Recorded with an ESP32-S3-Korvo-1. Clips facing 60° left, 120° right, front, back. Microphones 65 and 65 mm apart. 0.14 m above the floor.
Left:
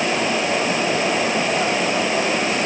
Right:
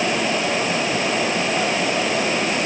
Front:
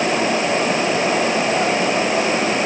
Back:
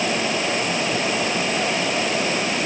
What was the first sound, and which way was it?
Only background noise.